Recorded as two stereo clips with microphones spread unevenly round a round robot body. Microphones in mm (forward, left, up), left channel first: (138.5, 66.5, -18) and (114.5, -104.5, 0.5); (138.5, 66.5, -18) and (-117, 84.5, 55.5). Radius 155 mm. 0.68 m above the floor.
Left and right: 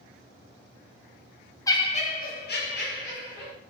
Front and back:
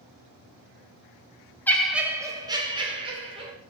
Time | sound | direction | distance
1.7 | laughter | 40° left | 0.6 m